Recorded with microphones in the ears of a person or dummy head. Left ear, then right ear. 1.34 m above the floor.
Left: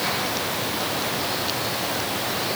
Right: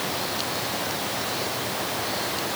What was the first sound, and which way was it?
Only background noise.